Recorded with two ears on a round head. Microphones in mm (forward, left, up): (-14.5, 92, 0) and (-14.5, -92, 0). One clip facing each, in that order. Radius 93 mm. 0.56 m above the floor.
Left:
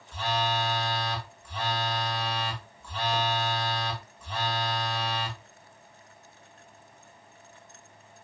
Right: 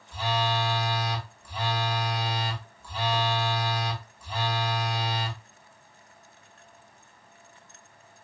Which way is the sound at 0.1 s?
10° right (ahead or behind).